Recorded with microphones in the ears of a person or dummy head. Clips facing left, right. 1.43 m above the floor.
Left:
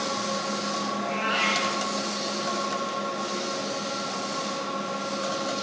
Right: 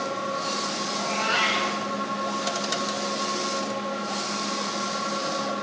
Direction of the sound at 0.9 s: 65° right (ahead or behind).